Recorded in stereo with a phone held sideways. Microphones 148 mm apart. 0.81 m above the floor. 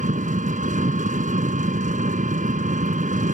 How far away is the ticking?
I don't hear ticking.